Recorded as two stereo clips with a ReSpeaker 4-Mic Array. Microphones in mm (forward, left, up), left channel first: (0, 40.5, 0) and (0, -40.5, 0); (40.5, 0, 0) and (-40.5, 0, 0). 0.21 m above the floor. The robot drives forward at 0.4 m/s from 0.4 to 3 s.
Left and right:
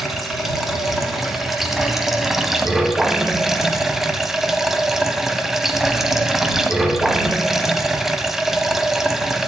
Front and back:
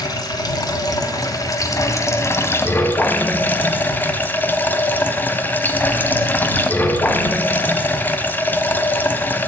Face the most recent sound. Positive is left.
turn(degrees=-10)